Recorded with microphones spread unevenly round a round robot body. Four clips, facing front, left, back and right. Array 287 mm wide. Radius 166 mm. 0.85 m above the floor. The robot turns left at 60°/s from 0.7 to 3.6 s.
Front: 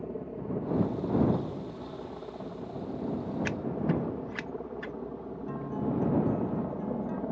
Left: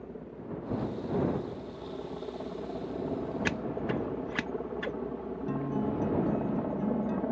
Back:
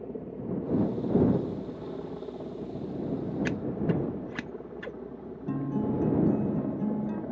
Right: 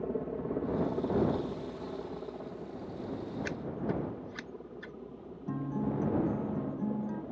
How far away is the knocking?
No knocking in this recording.